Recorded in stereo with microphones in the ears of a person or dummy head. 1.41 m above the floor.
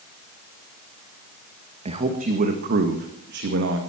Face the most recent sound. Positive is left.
turn(degrees=-70)  # may be behind; listen again after turning